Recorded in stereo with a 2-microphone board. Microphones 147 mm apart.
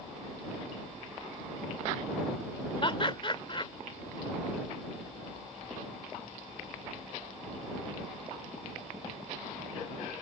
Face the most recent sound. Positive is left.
turn(degrees=35)  # may be behind; listen again after turning